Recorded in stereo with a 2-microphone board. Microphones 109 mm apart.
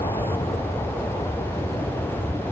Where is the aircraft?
75° left (ahead or behind); by 2.5 s 70° left (ahead or behind).